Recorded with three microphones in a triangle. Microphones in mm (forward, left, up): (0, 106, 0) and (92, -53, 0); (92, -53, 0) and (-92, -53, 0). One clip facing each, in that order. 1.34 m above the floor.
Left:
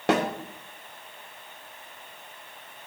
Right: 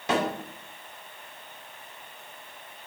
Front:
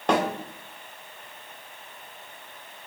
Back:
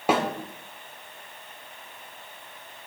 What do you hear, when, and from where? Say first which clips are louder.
0.1 s a snare drum: left 3 dB, even; 95° left, 2.5 m